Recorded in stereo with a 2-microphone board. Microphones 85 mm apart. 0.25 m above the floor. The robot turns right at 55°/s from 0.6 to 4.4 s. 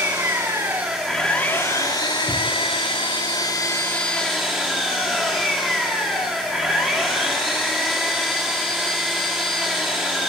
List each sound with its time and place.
0.0 s an engine running: 25° right, 5 m; by 10.3 s 175° right, 5 m
2.3 s a thud: 30° left (ahead or behind), 8 m; by 2.5 s 20° left (ahead or behind), 8 m